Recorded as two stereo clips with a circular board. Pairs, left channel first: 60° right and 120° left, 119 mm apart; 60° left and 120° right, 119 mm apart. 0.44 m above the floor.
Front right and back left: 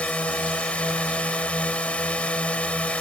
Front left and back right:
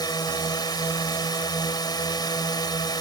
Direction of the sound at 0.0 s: 15° left.